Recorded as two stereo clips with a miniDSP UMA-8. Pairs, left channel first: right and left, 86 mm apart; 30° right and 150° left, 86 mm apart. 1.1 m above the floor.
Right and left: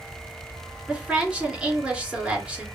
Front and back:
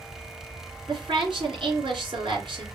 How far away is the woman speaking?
About 3 m.